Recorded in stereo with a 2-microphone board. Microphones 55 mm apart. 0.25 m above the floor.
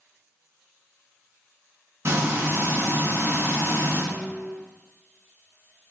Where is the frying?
55° right (ahead or behind), 1.3 m.